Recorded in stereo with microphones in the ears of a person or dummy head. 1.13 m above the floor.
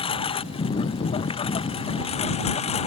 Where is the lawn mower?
25° left (ahead or behind); by 2.9 s 30° left (ahead or behind).